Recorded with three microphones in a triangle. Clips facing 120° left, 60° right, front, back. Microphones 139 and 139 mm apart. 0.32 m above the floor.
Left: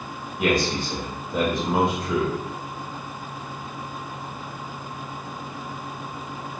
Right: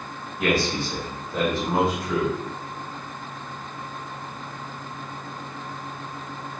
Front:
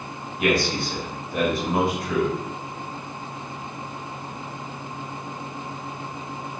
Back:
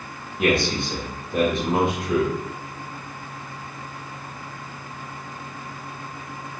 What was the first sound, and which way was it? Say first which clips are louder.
A man speaking: left 1 dB, back 1 dB; 165° left.